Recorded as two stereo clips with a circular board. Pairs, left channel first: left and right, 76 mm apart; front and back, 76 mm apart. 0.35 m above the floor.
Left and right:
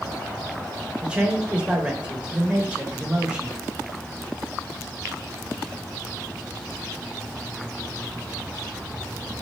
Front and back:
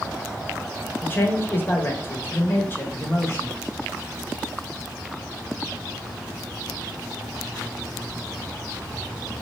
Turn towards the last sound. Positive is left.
turn(degrees=-25)